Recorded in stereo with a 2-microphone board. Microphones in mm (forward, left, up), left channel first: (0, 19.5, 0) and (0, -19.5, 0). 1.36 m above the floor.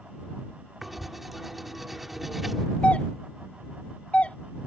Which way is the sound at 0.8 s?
5° right (ahead or behind).